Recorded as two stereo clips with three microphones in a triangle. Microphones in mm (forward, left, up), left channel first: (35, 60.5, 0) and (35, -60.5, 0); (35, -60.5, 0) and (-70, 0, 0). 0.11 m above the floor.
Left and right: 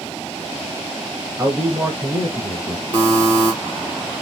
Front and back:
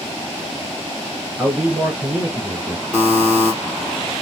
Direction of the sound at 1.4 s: 145° right.